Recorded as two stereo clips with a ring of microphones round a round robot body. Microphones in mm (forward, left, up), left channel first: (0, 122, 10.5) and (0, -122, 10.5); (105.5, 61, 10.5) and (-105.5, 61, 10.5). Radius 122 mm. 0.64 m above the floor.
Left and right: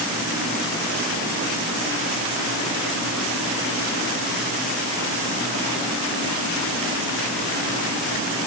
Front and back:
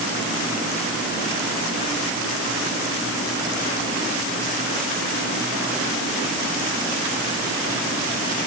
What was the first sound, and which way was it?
Only background noise.